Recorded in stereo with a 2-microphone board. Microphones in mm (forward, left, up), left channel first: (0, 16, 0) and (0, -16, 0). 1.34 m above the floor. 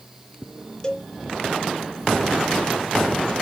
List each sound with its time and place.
0.8 s a cowbell: 20° left (ahead or behind), 1.0 m